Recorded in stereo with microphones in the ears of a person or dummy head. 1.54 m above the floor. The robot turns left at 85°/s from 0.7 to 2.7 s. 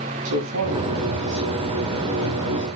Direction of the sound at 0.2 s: 70° right.